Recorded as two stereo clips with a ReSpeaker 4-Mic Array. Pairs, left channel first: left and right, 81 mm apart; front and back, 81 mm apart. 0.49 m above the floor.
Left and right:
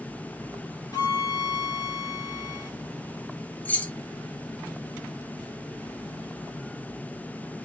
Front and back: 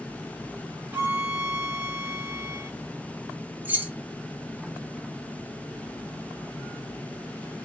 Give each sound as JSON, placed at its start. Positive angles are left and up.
{"t": 0.9, "sound": "a violin", "azimuth_deg": 115, "distance_m": 1.2}
{"t": 3.6, "sound": "keys jangling", "azimuth_deg": 140, "distance_m": 0.7}